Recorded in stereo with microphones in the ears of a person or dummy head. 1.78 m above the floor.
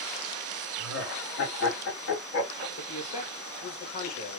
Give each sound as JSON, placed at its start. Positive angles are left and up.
{"t": 0.8, "sound": "laughter", "side_deg": 75, "distance_m": 2.0}
{"t": 2.8, "sound": "a man speaking", "side_deg": 40, "distance_m": 1.1}